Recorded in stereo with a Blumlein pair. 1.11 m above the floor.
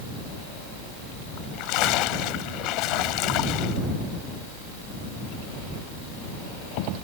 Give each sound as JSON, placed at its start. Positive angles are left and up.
{"t": 1.4, "sound": "a splash", "azimuth_deg": 40}